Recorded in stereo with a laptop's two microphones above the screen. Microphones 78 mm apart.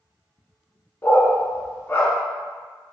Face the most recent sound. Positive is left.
turn(degrees=30)  # may be behind; listen again after turning